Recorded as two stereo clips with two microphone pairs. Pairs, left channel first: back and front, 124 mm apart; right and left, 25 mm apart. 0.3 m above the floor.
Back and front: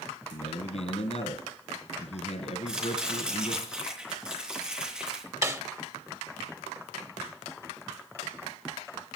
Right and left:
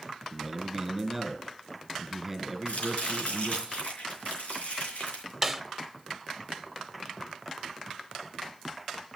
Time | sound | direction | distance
0.3 | a man speaking | 170° left | 2 m
2.7 | chopping | 80° right | 4.5 m
5.4 | a snare drum | 20° left | 0.8 m